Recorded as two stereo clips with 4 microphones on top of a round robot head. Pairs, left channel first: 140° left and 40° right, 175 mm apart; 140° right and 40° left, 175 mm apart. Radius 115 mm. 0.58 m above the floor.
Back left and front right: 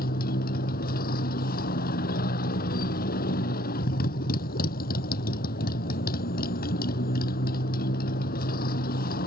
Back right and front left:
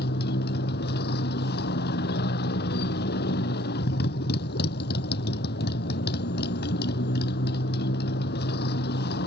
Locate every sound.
0.0 s a motorcycle: 175° right